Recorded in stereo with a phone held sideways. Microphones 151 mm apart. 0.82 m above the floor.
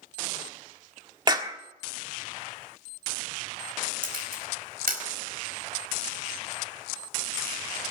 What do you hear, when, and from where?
1.3 s a clap: 30° right (ahead or behind), 1.5 m
4.0 s a camera shutter: 85° right, 4.5 m